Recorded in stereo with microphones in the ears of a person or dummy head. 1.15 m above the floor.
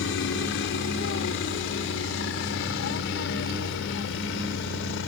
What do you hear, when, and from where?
0.0 s a helicopter: 55° left (ahead or behind); by 5.1 s 60° left (ahead or behind)